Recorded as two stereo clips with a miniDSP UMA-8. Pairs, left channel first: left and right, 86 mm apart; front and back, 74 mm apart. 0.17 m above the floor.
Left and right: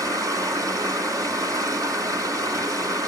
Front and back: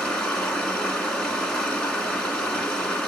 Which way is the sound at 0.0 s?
70° right.